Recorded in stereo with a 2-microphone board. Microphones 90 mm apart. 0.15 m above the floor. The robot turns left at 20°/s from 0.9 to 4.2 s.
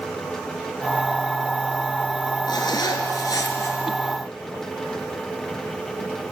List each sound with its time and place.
2.5 s a zipper: 50° left (ahead or behind), 3 m; by 3.8 s 35° left (ahead or behind), 3 m